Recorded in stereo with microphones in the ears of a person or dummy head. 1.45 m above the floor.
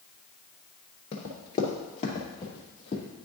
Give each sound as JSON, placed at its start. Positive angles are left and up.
{"t": 1.1, "sound": "running footsteps", "side_deg": 20, "distance_m": 1.5}